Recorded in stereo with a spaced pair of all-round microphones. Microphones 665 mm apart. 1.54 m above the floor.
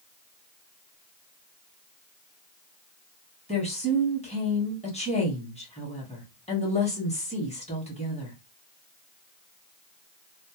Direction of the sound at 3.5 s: 10° left (ahead or behind).